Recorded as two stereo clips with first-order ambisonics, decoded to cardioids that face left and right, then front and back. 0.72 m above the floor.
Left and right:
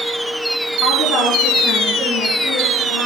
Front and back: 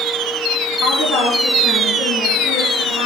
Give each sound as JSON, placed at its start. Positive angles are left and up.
{"t": 0.8, "sound": "a woman speaking", "azimuth_deg": 35, "distance_m": 6.0}